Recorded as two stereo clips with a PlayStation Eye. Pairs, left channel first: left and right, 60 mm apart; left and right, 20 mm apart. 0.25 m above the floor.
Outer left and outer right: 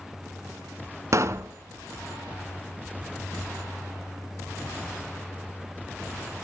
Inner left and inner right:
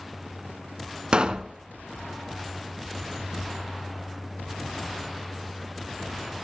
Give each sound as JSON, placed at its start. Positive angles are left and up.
{"t": 1.1, "sound": "a pop", "side_deg": -55, "distance_m": 0.7}